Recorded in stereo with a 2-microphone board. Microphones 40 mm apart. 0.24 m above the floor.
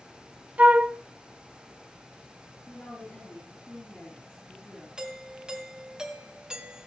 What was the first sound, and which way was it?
A flute, 40° right (ahead or behind).